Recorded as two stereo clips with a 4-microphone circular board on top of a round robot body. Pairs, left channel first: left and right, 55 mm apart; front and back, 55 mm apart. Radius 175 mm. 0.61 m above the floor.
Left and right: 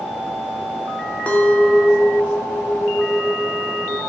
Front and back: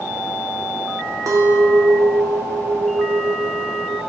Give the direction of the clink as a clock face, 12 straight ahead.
7 o'clock.